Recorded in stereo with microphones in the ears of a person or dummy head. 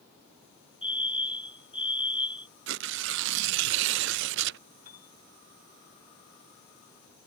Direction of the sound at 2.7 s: 65° right (ahead or behind).